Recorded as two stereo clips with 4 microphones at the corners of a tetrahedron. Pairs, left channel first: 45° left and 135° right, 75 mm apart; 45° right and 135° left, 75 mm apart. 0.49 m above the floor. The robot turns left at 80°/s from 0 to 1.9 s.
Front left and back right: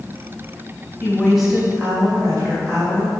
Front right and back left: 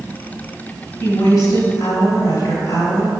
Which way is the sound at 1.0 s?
15° right.